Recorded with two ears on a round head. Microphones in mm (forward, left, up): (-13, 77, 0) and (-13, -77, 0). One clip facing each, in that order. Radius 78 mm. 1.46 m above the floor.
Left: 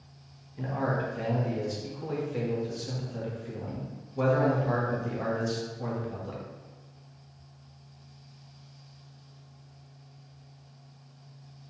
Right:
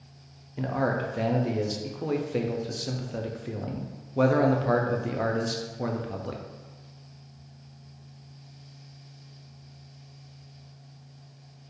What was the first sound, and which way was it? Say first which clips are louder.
A man speaking: right 3 dB; 60° right (ahead or behind).